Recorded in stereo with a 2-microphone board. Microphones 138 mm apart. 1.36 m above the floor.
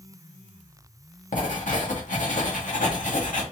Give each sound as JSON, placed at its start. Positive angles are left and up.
{"t": 1.3, "sound": "writing", "side_deg": 65, "distance_m": 1.4}